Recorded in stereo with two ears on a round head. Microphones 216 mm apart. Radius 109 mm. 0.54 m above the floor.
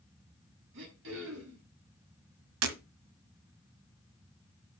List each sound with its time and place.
0.7 s throat clearing: 55° right (ahead or behind), 5.5 m
2.6 s breaking glass: 65° right (ahead or behind), 1.3 m